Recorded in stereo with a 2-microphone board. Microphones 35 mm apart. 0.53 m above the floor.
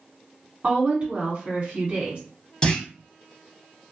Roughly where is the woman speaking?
Right.